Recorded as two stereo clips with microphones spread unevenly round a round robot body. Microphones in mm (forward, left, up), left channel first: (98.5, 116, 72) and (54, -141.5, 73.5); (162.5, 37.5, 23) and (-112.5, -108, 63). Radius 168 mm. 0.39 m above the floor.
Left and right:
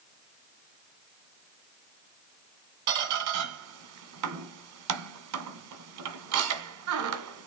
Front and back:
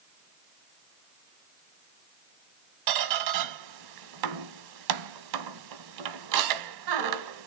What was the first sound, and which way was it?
A squeak, 135° right.